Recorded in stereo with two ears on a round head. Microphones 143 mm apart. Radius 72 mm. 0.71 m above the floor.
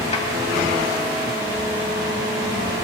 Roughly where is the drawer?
Left.